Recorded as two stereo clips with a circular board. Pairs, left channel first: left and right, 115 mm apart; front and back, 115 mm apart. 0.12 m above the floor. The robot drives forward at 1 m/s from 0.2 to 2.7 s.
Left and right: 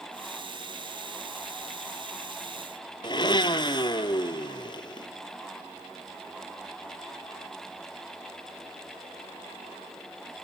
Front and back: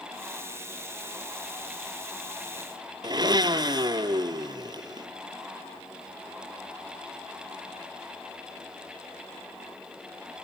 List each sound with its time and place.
3.0 s a blender: 135° left, 0.6 m